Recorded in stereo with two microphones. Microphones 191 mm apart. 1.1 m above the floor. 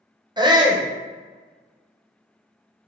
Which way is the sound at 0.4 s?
25° right (ahead or behind).